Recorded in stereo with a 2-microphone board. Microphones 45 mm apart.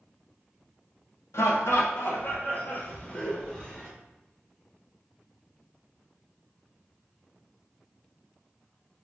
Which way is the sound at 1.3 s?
90° left.